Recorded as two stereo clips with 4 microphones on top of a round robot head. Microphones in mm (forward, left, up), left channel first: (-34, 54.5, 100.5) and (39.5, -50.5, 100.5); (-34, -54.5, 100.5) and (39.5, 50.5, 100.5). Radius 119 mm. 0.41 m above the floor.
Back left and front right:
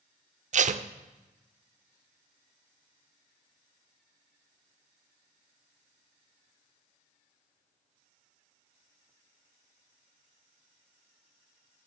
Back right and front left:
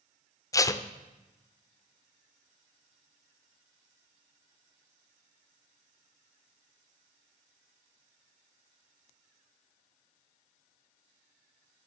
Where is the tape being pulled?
65° right, 0.6 m.